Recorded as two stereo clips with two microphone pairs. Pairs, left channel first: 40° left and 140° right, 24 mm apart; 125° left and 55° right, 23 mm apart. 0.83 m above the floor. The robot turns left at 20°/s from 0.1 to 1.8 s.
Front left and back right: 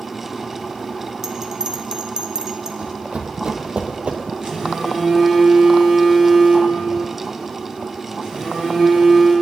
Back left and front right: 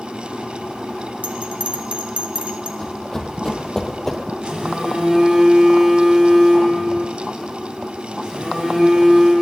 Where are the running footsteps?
170° right, 1.9 m; by 4.2 s 155° right, 1.1 m.